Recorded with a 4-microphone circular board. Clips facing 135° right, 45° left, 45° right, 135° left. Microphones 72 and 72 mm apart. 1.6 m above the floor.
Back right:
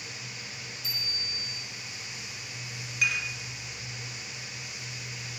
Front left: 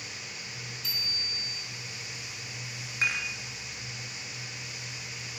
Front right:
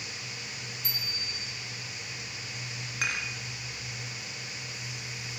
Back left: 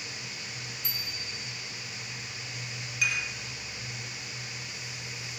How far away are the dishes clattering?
About 2 m.